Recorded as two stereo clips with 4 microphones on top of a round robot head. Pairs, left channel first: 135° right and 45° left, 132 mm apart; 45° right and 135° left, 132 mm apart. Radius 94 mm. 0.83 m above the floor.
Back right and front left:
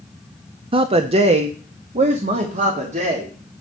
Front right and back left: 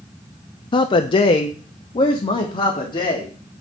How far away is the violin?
No violin in this recording.